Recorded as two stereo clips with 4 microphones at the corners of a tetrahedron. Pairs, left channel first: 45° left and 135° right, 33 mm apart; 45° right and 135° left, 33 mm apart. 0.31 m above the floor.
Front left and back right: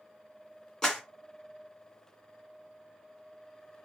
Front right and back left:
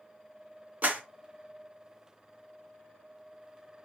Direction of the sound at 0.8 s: 110° left.